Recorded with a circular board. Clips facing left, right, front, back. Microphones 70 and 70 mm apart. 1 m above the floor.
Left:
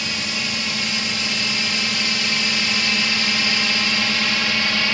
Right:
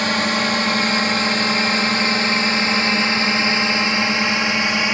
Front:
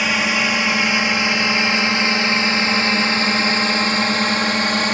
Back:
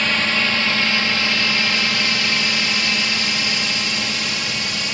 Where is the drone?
75° right; by 5.0 s 25° right.